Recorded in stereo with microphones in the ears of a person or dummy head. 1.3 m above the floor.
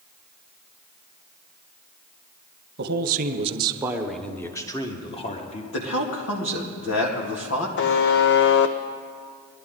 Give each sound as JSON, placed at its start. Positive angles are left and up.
{"t": 2.8, "sound": "a man speaking", "side_deg": -50, "distance_m": 1.0}
{"t": 5.7, "sound": "a man speaking", "side_deg": 70, "distance_m": 2.5}
{"t": 7.8, "sound": "a buzzer", "side_deg": 55, "distance_m": 0.7}